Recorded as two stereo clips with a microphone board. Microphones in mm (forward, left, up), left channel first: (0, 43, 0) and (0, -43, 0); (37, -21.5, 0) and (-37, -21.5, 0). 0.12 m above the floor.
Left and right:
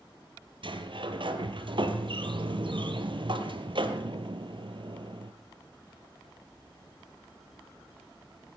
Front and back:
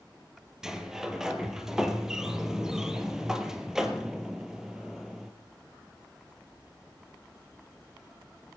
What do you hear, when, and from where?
0.6 s a sliding door: 100° right, 2.5 m